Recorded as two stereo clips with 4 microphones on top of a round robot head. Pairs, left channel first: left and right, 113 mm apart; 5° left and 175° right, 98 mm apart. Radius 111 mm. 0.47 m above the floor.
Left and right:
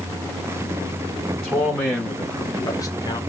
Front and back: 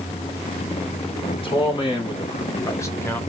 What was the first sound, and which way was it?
A man speaking, 15° left.